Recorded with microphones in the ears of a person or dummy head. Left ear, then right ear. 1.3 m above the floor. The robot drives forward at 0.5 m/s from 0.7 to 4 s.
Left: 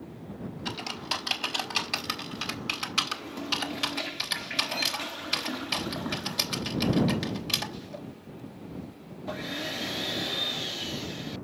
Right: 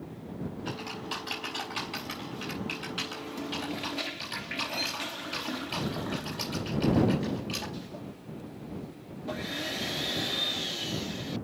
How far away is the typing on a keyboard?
About 4 m.